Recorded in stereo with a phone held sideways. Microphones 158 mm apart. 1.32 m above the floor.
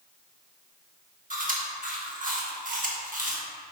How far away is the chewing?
About 1.1 m.